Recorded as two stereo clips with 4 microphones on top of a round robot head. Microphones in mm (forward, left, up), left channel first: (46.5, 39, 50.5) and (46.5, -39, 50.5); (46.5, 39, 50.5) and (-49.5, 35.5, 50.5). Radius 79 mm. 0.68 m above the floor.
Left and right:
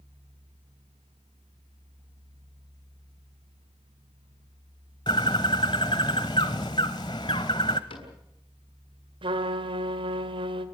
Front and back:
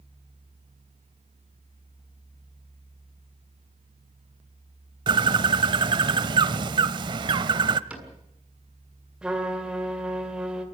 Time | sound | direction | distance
5.1 | a bird | 145° left | 0.8 m
7.9 | a cupboard door | 105° left | 7 m
9.2 | a trumpet | 95° right | 2.0 m